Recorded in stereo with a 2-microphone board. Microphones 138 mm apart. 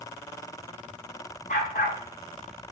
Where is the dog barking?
65° left (ahead or behind), 7.5 m.